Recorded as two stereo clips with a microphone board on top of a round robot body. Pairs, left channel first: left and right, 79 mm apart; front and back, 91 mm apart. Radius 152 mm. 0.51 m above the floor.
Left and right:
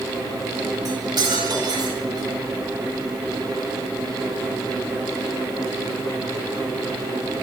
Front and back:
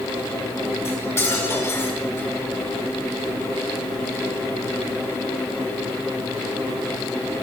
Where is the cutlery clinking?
60° right, 6 m.